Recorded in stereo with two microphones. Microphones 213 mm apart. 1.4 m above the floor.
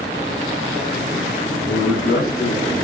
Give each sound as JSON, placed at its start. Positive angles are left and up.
{"t": 1.6, "sound": "a man speaking", "side_deg": 60, "distance_m": 1.9}